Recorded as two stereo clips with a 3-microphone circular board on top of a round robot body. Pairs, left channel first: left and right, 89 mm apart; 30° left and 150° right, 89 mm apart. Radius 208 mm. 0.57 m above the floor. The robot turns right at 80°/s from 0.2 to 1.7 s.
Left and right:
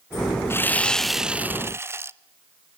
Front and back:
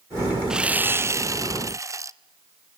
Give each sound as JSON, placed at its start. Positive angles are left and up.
{"t": 0.5, "sound": "sawing", "azimuth_deg": 130, "distance_m": 0.8}